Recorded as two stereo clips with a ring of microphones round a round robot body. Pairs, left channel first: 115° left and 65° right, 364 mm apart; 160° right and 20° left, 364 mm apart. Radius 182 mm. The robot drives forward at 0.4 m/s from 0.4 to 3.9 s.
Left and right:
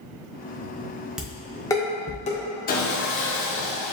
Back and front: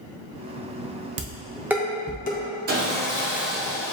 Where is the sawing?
65° left, 0.8 m; by 3.9 s 130° left, 0.8 m.